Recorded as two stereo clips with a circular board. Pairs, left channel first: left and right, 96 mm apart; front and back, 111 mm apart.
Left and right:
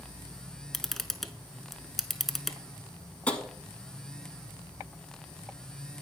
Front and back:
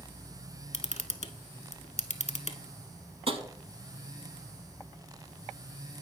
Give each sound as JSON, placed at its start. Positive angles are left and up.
{"t": 0.7, "sound": "a camera shutter", "azimuth_deg": 0, "distance_m": 0.5}
{"t": 3.3, "sound": "tapping", "azimuth_deg": 165, "distance_m": 0.8}